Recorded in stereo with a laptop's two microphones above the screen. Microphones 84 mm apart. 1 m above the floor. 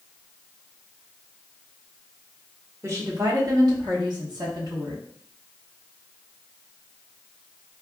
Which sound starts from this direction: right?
A woman speaking, at 2.8 s.